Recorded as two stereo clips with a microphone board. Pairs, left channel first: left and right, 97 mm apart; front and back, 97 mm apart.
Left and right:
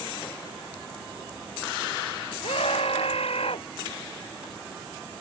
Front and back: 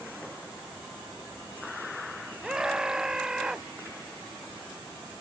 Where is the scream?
95° left.